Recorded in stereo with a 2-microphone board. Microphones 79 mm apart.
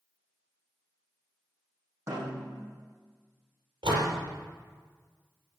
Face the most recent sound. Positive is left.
turn(degrees=-80)